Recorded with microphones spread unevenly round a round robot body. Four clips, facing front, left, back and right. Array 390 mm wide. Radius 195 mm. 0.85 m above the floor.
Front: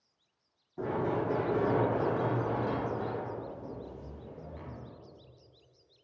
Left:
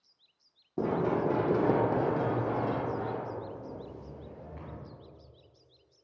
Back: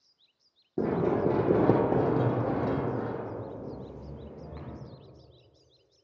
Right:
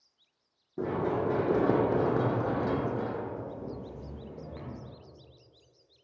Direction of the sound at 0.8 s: 160° left.